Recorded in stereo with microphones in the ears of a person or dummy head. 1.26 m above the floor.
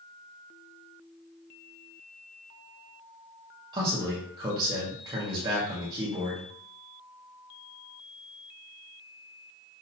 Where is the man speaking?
25° right (ahead or behind), 1.1 m.